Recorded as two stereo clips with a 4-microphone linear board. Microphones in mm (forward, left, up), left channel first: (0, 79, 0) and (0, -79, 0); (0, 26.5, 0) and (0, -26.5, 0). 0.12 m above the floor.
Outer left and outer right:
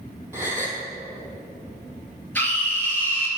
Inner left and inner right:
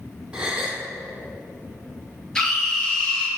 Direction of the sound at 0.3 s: 15° right (ahead or behind).